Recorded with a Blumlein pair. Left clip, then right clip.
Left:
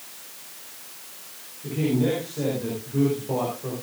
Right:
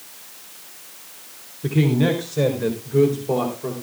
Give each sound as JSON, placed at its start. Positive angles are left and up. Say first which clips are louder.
{"t": 1.6, "sound": "a man speaking", "louder": "right 4 dB", "azimuth_deg": -55, "distance_m": 4.0}